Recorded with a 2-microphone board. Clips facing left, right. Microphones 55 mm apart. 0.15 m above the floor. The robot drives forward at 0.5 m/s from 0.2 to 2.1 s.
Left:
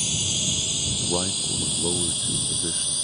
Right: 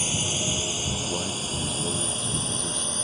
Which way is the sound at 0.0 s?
30° right (ahead or behind).